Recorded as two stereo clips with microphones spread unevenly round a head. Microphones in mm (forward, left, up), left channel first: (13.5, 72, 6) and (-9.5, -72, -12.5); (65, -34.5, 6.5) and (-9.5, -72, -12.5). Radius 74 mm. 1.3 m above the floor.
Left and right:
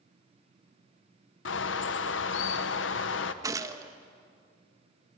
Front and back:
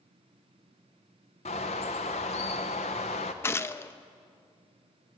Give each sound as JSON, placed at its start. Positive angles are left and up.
{"t": 1.4, "sound": "a bird", "azimuth_deg": 70, "distance_m": 0.8}
{"t": 3.4, "sound": "a gunshot", "azimuth_deg": -25, "distance_m": 0.8}